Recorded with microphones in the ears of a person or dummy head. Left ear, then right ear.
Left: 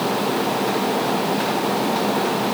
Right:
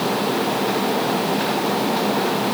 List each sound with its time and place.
Only background noise.